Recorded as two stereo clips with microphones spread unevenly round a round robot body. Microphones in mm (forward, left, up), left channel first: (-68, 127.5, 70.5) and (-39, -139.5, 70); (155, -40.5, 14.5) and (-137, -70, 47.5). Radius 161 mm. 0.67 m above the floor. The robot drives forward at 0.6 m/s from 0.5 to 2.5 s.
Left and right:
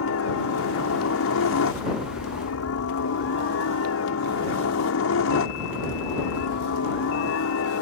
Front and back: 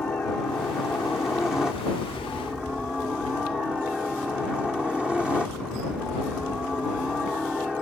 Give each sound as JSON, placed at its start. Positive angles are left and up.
{"t": 0.0, "sound": "a helicopter", "azimuth_deg": 90}